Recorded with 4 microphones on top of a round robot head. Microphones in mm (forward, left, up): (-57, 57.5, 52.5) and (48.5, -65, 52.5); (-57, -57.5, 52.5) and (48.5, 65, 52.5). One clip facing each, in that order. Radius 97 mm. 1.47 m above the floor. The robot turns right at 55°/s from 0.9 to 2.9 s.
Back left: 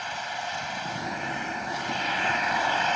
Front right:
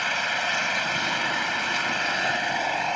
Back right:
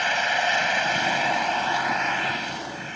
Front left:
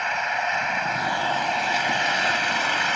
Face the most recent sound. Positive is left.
turn(degrees=40)